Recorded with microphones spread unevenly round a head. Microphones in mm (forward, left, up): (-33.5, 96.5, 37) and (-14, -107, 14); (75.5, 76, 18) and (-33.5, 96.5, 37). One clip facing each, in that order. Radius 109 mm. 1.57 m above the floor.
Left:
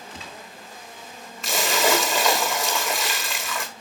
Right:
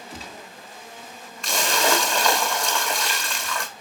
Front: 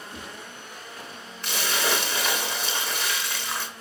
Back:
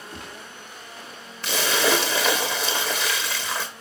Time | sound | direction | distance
0.1 | a gunshot | 135° right | 2.5 m
1.4 | a splash | straight behind | 1.2 m